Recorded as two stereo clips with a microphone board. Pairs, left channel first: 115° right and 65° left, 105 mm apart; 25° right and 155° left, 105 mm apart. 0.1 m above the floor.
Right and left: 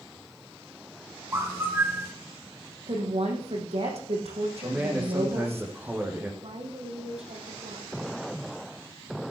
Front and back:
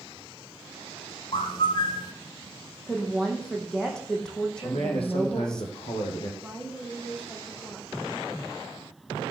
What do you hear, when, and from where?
1.3 s a bird: 5° left, 0.5 m
2.9 s a woman speaking: 60° left, 4.5 m
4.6 s a man speaking: 5° right, 3.5 m
6.4 s a woman speaking: 60° left, 4 m